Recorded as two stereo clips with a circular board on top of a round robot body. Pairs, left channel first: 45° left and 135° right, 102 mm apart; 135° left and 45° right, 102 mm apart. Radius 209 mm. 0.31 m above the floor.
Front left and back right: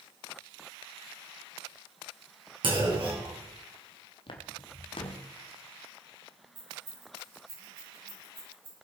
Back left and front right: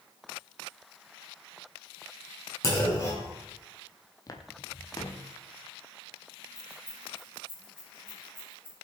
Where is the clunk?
170° right, 4.5 m.